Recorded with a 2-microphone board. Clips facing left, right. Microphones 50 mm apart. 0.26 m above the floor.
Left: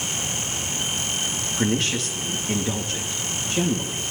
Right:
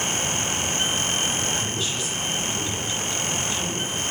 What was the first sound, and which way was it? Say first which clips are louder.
A woman speaking: left 5 dB; 65° left (ahead or behind).